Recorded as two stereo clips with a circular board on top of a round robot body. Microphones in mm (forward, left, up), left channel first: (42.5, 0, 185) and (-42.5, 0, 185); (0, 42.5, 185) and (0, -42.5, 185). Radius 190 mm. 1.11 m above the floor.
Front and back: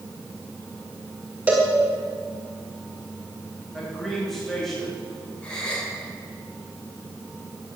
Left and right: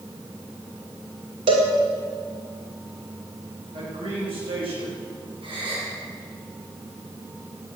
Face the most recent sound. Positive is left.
turn(degrees=-75)